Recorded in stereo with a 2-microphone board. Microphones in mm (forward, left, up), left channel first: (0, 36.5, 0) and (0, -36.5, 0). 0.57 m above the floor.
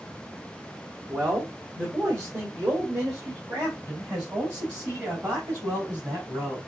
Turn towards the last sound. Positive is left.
turn(degrees=-35)  # may be behind; listen again after turning